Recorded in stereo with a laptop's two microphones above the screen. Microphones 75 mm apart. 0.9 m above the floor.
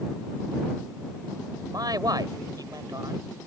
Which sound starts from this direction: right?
A man speaking, at 1.7 s.